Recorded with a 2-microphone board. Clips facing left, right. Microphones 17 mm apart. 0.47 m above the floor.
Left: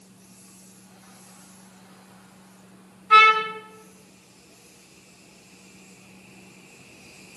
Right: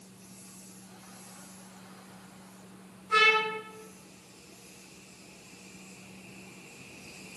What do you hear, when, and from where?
3.1 s a trumpet: 70° left (ahead or behind), 3 m